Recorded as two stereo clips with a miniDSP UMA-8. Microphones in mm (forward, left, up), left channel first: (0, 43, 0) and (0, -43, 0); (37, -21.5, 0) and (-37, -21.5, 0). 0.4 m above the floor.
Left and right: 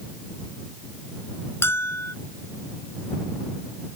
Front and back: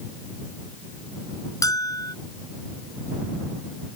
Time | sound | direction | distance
1.6 | a bell | 30° left | ?